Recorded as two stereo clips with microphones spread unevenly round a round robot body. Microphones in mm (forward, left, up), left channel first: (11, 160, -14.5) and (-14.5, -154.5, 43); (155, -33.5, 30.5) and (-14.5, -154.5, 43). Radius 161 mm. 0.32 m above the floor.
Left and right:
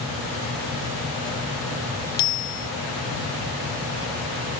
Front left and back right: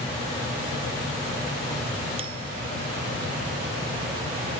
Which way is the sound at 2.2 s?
145° left.